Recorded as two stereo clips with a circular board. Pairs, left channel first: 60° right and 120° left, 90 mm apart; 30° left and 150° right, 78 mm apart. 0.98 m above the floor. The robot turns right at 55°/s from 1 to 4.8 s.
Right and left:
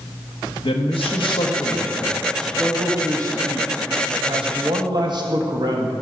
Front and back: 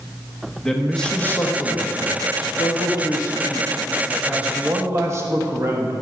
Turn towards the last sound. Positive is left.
turn(degrees=160)